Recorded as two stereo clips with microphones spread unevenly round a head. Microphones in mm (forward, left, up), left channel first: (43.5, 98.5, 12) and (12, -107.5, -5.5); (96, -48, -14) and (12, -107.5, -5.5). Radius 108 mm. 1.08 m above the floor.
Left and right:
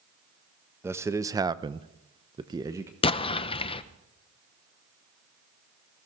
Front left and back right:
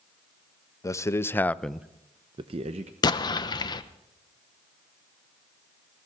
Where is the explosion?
20° left, 0.8 m.